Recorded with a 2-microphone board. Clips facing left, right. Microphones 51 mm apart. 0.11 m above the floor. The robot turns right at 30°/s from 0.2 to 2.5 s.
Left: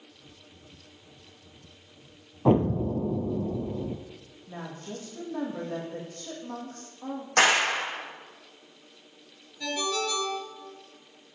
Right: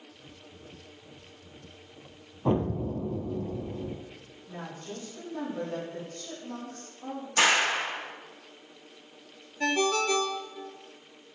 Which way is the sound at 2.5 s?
25° left (ahead or behind).